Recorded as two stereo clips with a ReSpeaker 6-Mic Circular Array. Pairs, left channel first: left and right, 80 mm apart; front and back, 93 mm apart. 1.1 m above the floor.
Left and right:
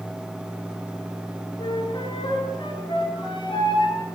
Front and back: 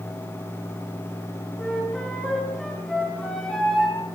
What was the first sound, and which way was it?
A flute, 85° left.